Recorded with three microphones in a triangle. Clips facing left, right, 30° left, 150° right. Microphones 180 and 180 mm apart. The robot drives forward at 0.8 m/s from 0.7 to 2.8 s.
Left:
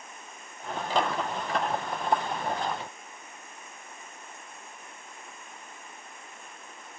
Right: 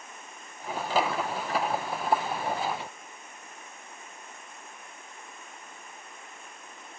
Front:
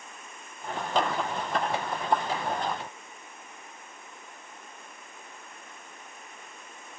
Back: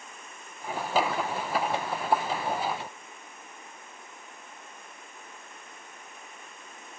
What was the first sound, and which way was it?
Only background noise.